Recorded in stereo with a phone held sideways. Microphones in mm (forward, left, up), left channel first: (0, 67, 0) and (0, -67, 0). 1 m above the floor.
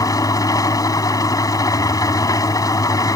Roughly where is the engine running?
Left.